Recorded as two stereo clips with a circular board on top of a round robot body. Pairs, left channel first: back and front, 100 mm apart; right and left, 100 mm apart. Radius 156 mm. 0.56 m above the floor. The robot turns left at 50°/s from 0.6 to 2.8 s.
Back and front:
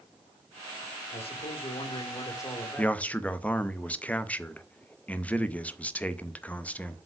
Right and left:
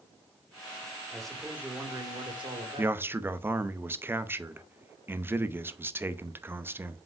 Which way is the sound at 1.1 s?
170° right.